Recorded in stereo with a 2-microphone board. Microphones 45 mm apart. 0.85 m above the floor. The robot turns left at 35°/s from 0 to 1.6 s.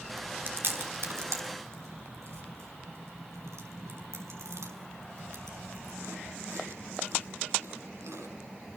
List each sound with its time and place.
0.2 s chewing: 35° right (ahead or behind), 5.5 m; by 8.3 s 85° right, 5.5 m